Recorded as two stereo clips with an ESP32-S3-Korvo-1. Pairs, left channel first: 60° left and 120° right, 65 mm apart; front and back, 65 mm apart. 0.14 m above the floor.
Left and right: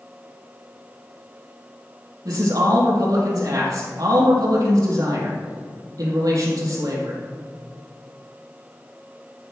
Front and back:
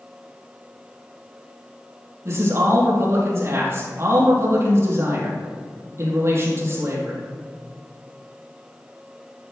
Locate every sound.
2.2 s a man speaking: 135° right, 4 m